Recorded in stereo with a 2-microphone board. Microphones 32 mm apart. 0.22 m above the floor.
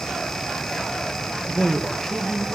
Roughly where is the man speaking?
Centre.